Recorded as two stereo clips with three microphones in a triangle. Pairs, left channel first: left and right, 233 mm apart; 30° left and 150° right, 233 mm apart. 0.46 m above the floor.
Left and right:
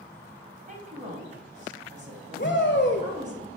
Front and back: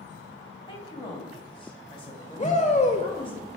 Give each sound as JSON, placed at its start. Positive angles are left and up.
{"t": 0.7, "sound": "a woman speaking", "azimuth_deg": -35, "distance_m": 3.0}
{"t": 2.4, "sound": "a shout", "azimuth_deg": 80, "distance_m": 1.8}